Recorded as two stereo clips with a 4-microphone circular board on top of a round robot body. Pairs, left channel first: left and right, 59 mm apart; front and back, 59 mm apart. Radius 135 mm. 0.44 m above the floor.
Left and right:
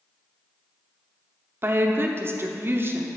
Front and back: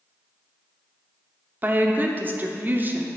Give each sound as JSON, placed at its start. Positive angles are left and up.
{"t": 1.6, "sound": "a woman speaking", "azimuth_deg": -130, "distance_m": 1.1}